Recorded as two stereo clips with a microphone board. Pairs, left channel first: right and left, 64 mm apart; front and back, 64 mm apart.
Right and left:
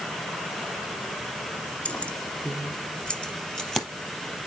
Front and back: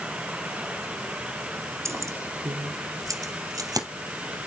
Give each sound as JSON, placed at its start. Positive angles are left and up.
{"t": 1.9, "sound": "keys jangling", "azimuth_deg": -155, "distance_m": 1.5}